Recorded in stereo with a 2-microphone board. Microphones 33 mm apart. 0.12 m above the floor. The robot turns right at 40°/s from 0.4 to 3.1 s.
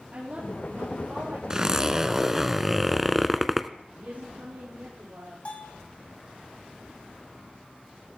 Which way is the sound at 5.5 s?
40° left (ahead or behind).